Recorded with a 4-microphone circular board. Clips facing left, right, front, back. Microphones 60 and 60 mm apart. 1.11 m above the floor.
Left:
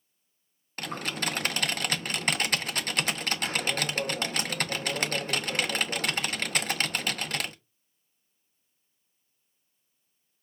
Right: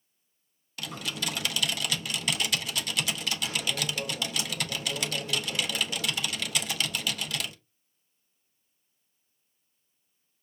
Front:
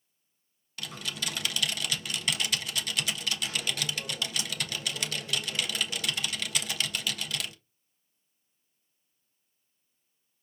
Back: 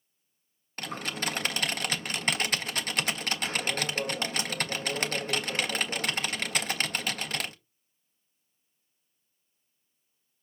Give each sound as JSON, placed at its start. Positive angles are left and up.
{"t": 0.8, "sound": "typing on a keyboard", "azimuth_deg": 130, "distance_m": 0.5}